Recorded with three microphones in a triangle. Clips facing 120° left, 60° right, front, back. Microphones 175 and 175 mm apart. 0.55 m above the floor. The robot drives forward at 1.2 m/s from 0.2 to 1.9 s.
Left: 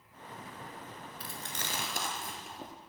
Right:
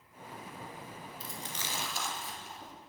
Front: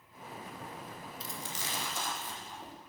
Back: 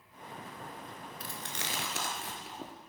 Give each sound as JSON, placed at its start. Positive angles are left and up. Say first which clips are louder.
{"t": 1.2, "sound": "chewing", "louder": "left 1 dB, even", "azimuth_deg": 145, "distance_m": 1.4}